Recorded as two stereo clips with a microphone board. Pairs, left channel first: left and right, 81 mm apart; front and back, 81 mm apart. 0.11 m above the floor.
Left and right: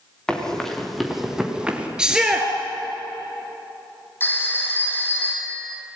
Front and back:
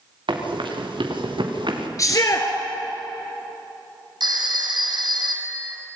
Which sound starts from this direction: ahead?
A shout, at 2.0 s.